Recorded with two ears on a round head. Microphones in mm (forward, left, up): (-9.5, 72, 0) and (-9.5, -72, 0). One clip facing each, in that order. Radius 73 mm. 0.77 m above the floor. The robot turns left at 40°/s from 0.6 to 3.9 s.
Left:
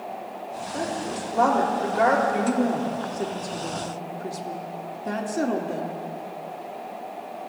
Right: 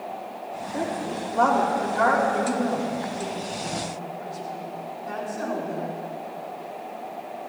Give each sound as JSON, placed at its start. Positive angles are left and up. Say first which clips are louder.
{"t": 0.7, "sound": "a woman speaking", "louder": "right 1 dB", "azimuth_deg": -165, "distance_m": 2.0}
{"t": 2.3, "sound": "a woman speaking", "louder": "left 1 dB", "azimuth_deg": 170, "distance_m": 1.7}